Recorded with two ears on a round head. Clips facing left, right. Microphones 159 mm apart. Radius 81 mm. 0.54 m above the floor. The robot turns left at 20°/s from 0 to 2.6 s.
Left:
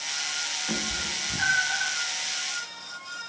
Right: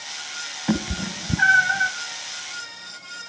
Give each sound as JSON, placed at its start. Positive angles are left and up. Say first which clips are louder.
{"t": 0.7, "sound": "a cat meowing", "louder": "right 10 dB", "side_deg": -75, "distance_m": 1.1}